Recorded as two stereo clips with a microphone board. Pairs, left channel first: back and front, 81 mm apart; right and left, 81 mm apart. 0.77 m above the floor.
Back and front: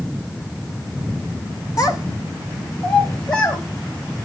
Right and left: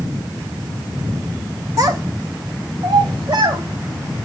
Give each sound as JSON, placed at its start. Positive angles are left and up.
{"t": 1.8, "sound": "a child speaking", "azimuth_deg": 140, "distance_m": 0.9}